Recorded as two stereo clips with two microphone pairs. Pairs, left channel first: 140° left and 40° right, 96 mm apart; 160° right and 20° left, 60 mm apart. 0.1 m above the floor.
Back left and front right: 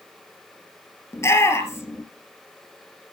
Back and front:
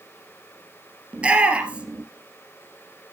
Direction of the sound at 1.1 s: 90° left.